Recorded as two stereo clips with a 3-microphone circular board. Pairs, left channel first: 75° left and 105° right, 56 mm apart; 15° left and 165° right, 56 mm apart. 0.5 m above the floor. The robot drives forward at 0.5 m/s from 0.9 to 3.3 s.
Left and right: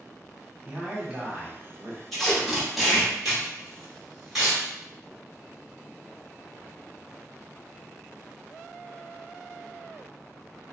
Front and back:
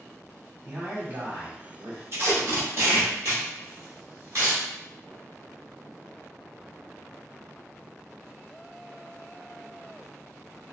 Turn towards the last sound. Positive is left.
turn(degrees=170)